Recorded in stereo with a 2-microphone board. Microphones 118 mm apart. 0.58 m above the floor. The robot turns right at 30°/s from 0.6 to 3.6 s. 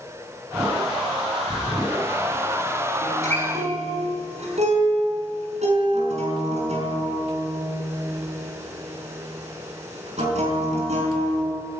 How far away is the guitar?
About 5.5 m.